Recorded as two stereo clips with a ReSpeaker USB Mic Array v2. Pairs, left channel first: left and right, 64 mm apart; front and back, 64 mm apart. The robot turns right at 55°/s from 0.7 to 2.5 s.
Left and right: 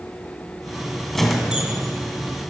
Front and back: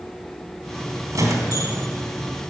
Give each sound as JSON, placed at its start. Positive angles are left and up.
{"t": 1.1, "sound": "a squeak", "azimuth_deg": 170, "distance_m": 1.8}